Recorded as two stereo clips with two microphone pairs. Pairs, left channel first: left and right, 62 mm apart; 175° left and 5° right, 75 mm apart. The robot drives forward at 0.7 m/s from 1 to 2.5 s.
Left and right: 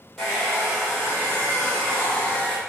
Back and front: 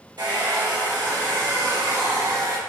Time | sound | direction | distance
0.2 | a hair dryer | 5° left | 1.7 m